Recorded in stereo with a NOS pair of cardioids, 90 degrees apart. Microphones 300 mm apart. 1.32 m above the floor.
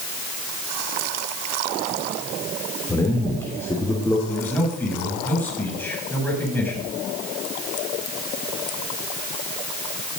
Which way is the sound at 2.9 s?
10° left.